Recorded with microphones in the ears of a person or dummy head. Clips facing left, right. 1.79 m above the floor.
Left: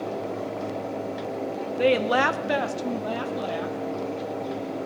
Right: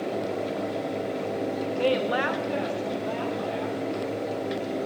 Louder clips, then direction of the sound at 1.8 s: Left 4 dB; 20° left (ahead or behind).